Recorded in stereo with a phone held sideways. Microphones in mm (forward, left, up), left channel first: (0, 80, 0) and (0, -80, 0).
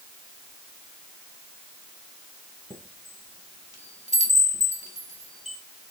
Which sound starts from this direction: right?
A chime, at 2.7 s.